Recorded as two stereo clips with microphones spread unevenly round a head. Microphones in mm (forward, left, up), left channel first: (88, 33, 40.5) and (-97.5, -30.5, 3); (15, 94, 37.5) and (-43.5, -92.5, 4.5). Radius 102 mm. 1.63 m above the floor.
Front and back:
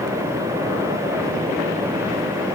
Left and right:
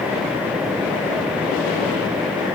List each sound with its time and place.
Only background noise.